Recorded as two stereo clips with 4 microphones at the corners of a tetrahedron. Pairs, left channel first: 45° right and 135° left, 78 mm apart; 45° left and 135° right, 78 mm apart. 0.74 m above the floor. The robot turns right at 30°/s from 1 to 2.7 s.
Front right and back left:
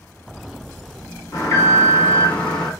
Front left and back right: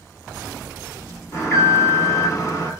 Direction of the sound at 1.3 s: 10° right.